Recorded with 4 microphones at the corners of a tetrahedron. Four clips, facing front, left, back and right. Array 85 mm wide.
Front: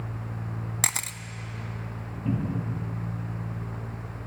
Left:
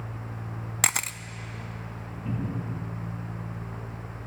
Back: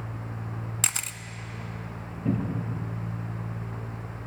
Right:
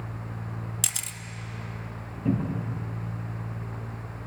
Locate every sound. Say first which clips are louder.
0.8 s a camera shutter: left 9 dB, front 3 dB; 75° left, 0.6 m
2.2 s a cupboard door: right 5 dB, back 1 dB; 120° right, 6.5 m